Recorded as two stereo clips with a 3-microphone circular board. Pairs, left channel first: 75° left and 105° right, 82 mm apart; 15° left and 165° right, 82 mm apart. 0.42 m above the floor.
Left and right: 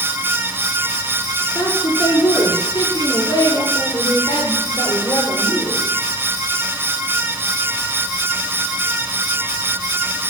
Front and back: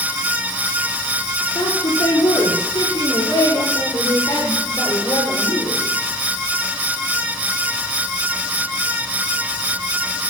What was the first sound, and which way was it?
A woman speaking, 35° left.